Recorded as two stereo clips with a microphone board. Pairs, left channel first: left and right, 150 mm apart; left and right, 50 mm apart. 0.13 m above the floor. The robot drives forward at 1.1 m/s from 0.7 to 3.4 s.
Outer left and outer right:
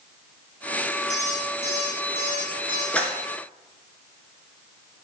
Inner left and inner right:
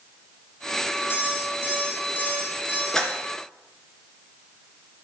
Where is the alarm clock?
55° left (ahead or behind), 3.5 m; by 2.8 s 35° left (ahead or behind), 5 m.